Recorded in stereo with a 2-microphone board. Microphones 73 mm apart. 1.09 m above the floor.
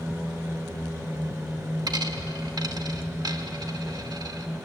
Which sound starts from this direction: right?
A dropped coin, at 1.9 s.